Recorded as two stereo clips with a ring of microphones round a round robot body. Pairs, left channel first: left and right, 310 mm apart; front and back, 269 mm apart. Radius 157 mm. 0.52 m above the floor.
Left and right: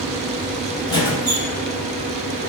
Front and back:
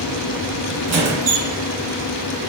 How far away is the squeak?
About 0.7 m.